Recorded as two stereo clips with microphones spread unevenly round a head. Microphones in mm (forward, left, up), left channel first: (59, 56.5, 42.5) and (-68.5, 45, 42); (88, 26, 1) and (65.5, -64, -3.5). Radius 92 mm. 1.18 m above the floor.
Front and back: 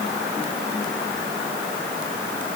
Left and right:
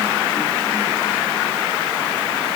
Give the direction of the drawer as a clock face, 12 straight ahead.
No drawer in this recording.